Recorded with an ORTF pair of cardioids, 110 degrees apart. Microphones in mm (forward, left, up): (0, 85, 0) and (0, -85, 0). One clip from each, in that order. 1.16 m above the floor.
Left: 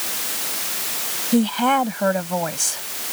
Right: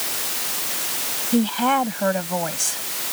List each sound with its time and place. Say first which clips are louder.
1.3 s a woman speaking: left 1 dB; 25° left